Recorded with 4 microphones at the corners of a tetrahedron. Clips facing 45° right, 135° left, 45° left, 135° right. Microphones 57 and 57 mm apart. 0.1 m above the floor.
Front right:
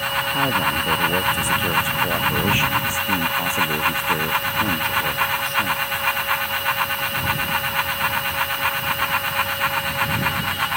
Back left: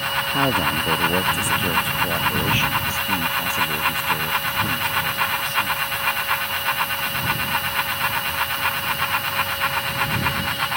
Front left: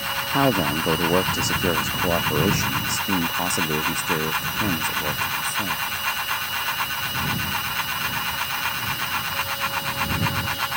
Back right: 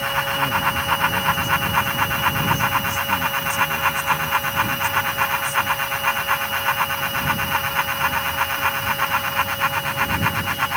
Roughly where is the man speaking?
Ahead left.